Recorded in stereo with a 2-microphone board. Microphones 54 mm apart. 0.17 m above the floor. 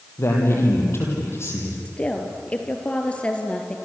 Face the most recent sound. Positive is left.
turn(degrees=20)  # may be behind; listen again after turning